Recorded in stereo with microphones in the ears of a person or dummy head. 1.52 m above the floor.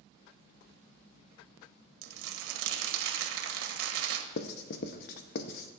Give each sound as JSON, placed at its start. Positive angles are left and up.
{"t": 2.0, "sound": "crumpling", "side_deg": -80, "distance_m": 1.6}
{"t": 4.4, "sound": "writing", "side_deg": 60, "distance_m": 0.7}